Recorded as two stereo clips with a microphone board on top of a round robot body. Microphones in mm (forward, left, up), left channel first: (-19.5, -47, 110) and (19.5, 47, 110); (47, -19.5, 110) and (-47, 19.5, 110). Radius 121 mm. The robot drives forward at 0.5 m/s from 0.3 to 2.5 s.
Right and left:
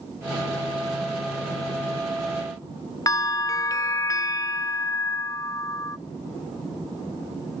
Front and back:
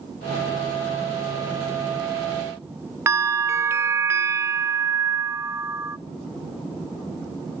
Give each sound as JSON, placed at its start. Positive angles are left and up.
{"t": 3.1, "sound": "a bell", "azimuth_deg": -150, "distance_m": 0.7}